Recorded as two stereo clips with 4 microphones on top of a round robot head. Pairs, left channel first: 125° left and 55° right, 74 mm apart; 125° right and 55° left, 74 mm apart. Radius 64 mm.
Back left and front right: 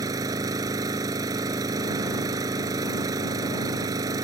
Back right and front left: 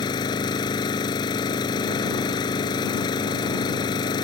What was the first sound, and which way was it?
An engine running, 95° right.